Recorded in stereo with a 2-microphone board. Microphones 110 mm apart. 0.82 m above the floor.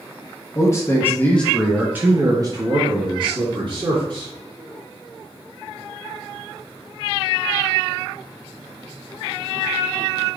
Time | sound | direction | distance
0.6 | a man speaking | 30° left (ahead or behind) | 0.9 m